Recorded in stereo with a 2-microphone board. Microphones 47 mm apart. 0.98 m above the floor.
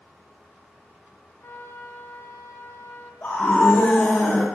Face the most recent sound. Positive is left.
turn(degrees=40)  # may be behind; listen again after turning